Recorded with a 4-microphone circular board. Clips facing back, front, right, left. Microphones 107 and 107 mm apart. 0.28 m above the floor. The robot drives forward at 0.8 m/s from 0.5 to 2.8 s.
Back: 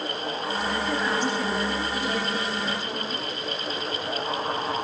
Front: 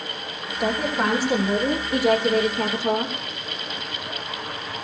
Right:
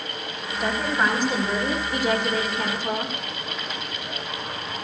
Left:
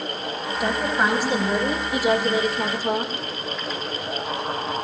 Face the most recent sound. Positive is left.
turn(degrees=5)